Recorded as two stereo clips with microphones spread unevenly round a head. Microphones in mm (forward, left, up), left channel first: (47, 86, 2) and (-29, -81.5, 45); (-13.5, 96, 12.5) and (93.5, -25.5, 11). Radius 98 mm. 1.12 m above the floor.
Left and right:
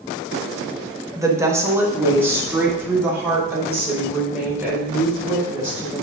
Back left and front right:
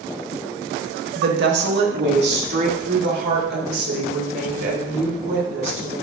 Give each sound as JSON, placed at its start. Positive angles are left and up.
{"t": 1.1, "sound": "a woman speaking", "azimuth_deg": -40, "distance_m": 1.4}